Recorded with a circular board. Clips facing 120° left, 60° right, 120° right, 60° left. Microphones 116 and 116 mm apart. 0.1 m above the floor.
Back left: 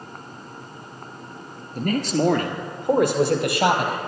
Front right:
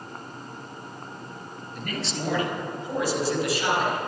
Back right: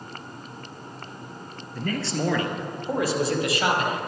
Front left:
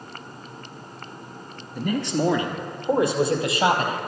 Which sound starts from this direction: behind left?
A man speaking, at 1.8 s.